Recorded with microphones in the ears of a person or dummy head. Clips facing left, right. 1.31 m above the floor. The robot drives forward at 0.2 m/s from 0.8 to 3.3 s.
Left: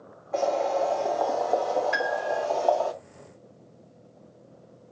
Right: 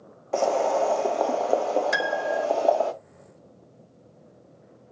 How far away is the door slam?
No door slam in this recording.